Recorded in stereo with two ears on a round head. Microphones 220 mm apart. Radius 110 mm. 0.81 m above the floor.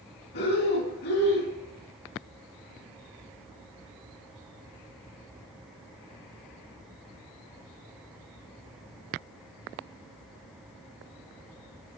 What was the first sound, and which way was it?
Breathing, 45° left (ahead or behind).